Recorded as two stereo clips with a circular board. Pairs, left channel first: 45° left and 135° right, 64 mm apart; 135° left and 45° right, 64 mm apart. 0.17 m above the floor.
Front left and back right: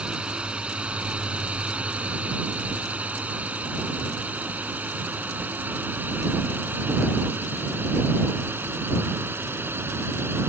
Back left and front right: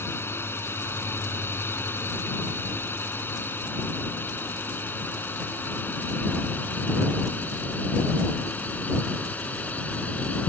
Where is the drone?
160° left; by 10.5 s 165° right.